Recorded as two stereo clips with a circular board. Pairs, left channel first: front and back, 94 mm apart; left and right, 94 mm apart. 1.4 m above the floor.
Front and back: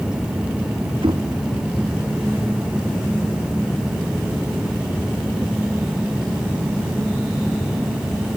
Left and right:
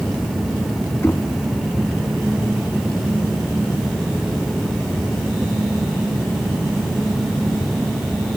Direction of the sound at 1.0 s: 155° left.